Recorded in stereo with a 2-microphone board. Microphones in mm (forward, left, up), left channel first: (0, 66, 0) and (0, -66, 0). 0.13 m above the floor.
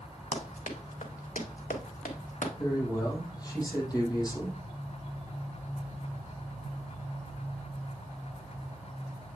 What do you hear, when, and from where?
0.3 s running footsteps: 65° left (ahead or behind), 2 m; by 2.5 s 70° left (ahead or behind), 3 m
2.6 s a man speaking: 30° left (ahead or behind), 3.5 m